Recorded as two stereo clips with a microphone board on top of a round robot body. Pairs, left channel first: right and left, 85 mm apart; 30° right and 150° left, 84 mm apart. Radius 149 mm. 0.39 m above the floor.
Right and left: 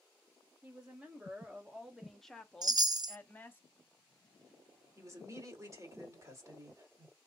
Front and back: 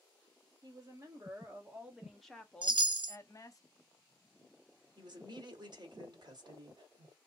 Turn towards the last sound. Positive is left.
turn(degrees=135)